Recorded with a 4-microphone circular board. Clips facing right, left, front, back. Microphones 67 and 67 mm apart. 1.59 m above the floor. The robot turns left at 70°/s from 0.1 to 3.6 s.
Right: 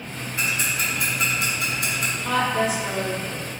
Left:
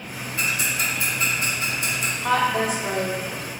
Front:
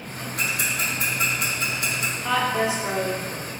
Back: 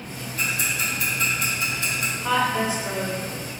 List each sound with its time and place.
0.4 s ticking: 15° right, 0.9 m; by 2.1 s 135° right, 0.9 m
2.2 s a woman speaking: 100° left, 0.7 m; by 3.5 s 15° left, 0.7 m